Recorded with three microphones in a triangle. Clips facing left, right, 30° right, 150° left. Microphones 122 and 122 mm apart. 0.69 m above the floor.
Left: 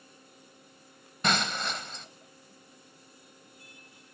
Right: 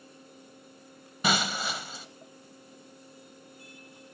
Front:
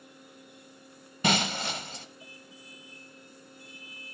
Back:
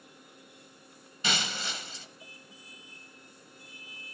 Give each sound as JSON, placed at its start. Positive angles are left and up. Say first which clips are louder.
{"t": 1.2, "sound": "breaking glass", "louder": "right 1 dB, front 7 dB", "azimuth_deg": -5, "distance_m": 0.8}